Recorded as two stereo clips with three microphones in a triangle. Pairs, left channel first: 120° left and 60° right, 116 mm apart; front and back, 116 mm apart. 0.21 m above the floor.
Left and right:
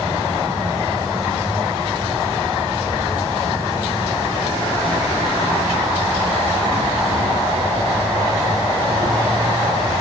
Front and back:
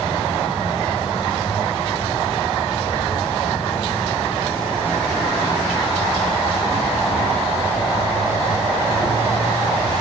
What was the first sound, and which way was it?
An insect, 5° right.